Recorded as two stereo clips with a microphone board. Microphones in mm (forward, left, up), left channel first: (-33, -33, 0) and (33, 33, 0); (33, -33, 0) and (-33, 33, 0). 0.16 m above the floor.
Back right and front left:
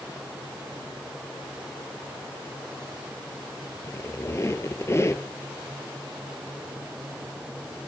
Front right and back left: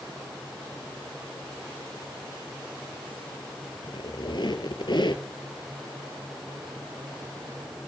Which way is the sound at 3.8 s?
75° right.